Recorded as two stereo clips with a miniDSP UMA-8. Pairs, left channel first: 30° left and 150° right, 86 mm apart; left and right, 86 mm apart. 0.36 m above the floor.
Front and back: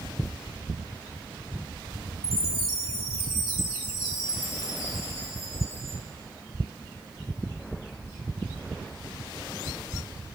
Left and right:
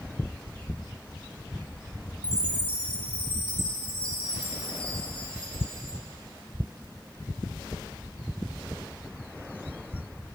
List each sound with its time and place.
2.2 s a chime: 85° left, 2.5 m